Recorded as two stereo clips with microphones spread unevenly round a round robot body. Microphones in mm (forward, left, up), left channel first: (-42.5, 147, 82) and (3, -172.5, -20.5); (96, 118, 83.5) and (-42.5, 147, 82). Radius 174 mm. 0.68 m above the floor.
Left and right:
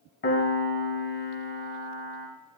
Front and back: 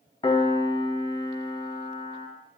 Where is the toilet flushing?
No toilet flushing in this recording.